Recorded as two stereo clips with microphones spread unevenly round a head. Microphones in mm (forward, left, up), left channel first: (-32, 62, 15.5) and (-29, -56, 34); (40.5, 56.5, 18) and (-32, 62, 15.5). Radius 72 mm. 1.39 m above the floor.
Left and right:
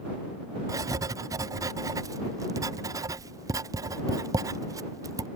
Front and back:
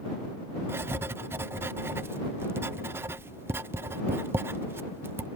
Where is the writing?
150° right.